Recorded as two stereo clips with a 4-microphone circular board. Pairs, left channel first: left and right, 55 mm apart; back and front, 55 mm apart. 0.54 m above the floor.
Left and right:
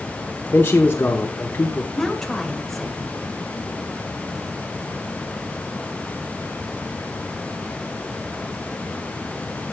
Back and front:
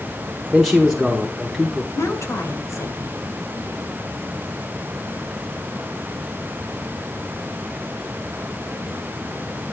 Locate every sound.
0.5 s a man speaking: 85° left, 1.2 m
1.9 s a woman speaking: 170° left, 2.0 m